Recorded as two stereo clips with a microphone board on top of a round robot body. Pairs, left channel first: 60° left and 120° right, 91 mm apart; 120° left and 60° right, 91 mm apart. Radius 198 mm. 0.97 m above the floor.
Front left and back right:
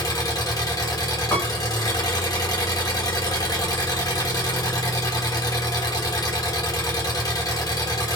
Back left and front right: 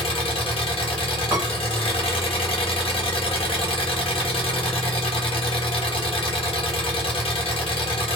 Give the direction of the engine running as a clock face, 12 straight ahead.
8 o'clock.